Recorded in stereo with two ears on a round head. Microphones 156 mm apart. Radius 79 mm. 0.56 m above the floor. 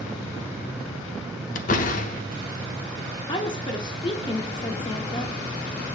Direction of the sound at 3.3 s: 25° left (ahead or behind).